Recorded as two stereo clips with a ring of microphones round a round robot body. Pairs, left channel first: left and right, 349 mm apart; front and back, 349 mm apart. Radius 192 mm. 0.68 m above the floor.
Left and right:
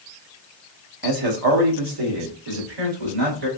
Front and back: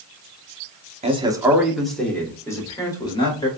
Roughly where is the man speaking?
Right.